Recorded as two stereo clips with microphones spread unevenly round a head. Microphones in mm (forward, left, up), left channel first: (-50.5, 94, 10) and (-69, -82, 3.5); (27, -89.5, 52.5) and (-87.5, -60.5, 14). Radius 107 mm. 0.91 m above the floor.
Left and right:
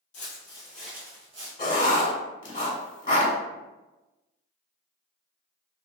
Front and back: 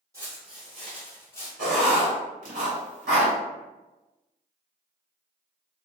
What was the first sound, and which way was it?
Footsteps, 80° left.